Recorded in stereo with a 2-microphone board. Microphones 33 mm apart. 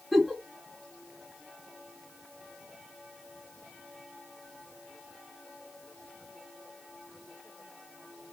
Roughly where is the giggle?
Centre.